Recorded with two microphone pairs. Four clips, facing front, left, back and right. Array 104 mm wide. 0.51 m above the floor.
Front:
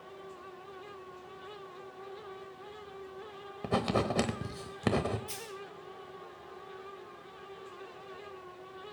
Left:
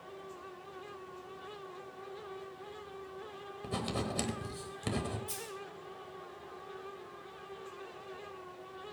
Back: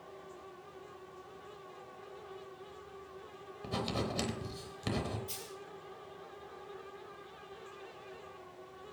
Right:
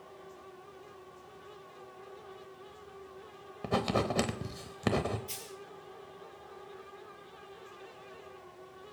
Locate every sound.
3.6 s writing: 45° right, 1.0 m
5.3 s a dropped coin: 45° right, 3.5 m